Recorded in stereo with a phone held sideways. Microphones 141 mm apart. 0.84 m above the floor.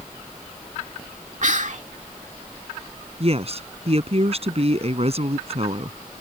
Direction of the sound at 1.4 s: 60° right (ahead or behind).